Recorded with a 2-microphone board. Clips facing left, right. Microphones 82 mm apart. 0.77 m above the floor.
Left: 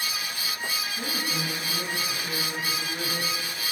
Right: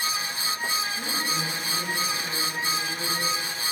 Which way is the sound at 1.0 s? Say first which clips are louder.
Right 1 dB; 5° left (ahead or behind).